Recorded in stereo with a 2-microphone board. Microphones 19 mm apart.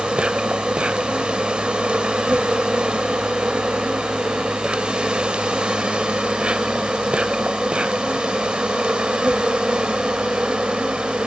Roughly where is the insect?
Right.